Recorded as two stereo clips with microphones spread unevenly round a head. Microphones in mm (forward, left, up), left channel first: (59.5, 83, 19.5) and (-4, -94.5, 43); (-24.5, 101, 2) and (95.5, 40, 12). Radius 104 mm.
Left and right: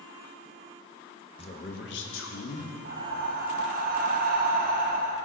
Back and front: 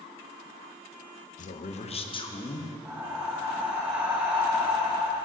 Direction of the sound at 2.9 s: 105° right.